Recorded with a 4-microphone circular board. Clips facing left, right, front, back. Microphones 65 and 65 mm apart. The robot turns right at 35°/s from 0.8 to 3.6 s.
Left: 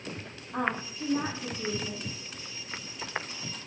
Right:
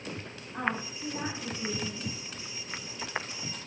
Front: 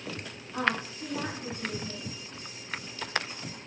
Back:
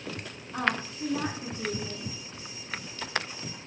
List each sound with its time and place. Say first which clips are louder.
0.5 s a woman speaking: left 2 dB, even; 100° left, 5.5 m; by 2.1 s 145° left, 5.5 m